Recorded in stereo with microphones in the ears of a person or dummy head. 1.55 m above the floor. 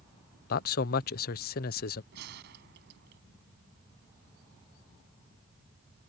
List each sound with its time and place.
0.5 s a man speaking: 50° left (ahead or behind)
2.1 s a gunshot: 65° right (ahead or behind)